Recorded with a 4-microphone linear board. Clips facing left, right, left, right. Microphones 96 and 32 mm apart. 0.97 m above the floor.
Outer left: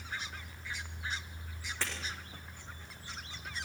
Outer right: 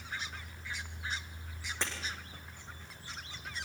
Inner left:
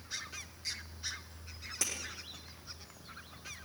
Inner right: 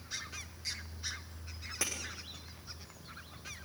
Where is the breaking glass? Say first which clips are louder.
Outer right 1 dB, inner right 1 dB; 20° right (ahead or behind), 6.5 m.